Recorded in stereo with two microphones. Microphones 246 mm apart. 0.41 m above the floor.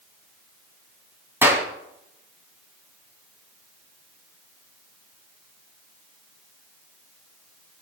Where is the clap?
10° right (ahead or behind), 2.5 m.